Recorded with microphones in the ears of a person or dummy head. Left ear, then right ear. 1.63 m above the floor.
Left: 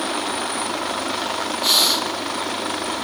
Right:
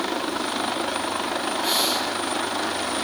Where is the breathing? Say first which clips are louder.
Left 7 dB; 25° left (ahead or behind), 3 m.